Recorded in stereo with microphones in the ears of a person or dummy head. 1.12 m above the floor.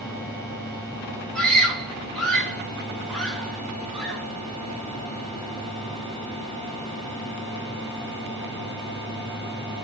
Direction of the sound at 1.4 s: 5° left (ahead or behind).